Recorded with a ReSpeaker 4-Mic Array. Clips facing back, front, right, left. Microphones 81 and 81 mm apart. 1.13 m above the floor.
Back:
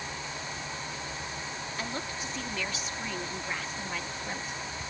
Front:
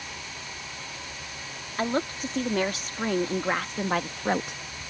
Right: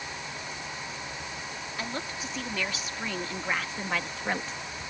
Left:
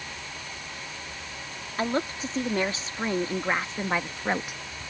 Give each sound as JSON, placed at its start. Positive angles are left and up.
{"t": 1.8, "sound": "a woman speaking", "azimuth_deg": 40}